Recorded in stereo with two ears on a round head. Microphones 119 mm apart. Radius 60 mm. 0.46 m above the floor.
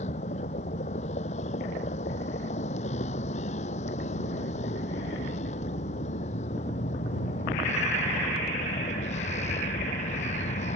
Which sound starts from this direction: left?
A vehicle, at 0.0 s.